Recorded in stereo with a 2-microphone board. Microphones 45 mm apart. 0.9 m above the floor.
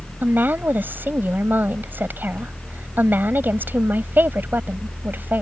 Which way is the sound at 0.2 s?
45° right (ahead or behind).